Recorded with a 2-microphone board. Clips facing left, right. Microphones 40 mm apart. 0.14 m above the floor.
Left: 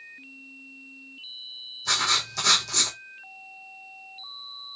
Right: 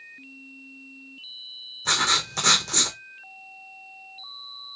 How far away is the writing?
About 1.2 m.